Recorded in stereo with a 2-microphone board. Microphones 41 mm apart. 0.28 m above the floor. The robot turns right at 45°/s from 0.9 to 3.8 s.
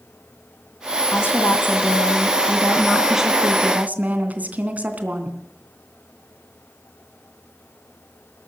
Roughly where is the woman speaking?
Left.